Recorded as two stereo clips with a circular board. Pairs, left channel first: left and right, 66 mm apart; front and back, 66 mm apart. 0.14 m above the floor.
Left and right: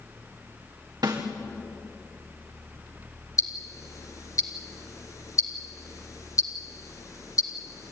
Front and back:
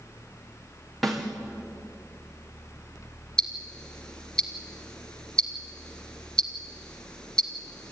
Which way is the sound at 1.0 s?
90° right.